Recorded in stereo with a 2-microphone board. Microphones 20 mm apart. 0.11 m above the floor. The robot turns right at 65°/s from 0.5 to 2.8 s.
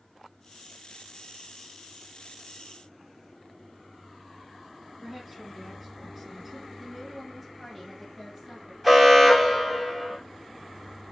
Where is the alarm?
Centre (ahead or behind), 1.4 m.